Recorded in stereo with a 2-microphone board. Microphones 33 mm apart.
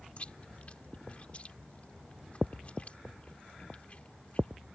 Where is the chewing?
40° left (ahead or behind).